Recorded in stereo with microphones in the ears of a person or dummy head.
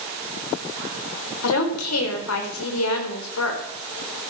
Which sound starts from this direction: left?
A woman speaking, at 1.4 s.